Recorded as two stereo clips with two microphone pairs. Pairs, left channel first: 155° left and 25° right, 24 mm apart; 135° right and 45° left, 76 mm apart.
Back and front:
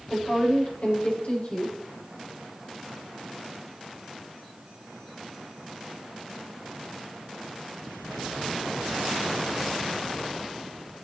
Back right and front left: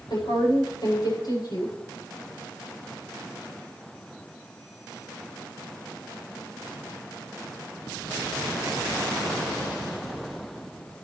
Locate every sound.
0.1 s a woman speaking: 160° right, 8.5 m